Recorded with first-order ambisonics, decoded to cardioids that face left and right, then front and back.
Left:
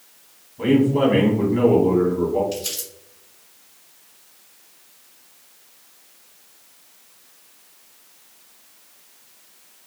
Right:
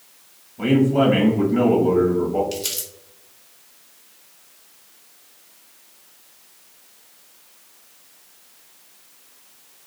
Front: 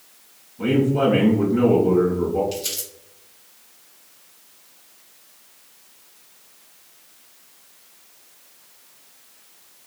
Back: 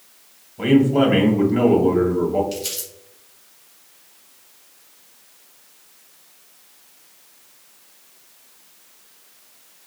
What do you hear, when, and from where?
0.6 s a man speaking: 160° right, 1.6 m
2.5 s crumpling: 95° right, 1.3 m